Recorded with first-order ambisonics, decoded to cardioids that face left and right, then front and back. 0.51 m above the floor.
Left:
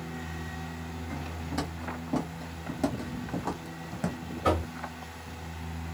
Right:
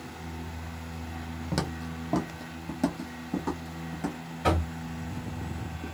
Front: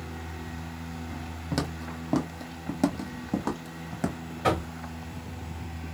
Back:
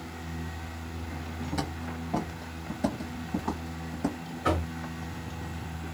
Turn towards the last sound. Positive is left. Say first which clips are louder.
# even, front 2 dB
turn(degrees=-40)